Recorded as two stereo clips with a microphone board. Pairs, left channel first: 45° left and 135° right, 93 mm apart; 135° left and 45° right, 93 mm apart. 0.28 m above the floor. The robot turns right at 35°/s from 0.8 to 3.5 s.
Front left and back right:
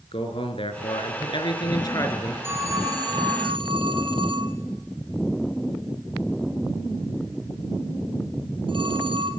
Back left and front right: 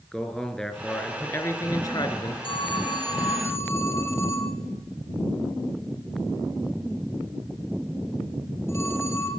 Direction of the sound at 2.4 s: 160° left.